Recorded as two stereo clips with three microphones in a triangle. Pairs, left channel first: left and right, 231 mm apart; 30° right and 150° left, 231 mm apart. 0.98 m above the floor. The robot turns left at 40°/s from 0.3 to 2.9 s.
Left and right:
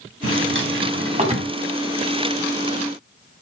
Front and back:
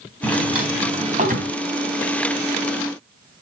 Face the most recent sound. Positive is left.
turn(degrees=140)